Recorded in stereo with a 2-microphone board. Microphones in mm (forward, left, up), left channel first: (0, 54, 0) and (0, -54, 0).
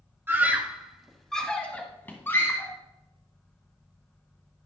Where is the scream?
20° right (ahead or behind), 1.0 m; by 2.7 s 25° left (ahead or behind), 1.6 m.